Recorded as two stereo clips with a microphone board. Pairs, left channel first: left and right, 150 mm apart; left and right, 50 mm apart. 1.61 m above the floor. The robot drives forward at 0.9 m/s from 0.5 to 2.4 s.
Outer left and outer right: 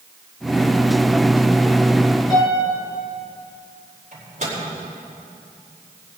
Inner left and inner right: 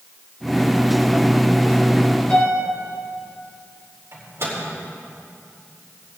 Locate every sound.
2.3 s a piano: 30° left (ahead or behind), 4.5 m; by 2.6 s 25° left (ahead or behind), 4.5 m
4.1 s a microwave: 55° right (ahead or behind), 4 m